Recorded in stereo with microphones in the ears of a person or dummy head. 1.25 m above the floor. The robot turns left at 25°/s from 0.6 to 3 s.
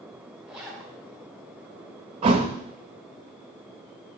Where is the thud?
30° right (ahead or behind), 0.6 m; by 2.5 s 25° right (ahead or behind), 0.6 m.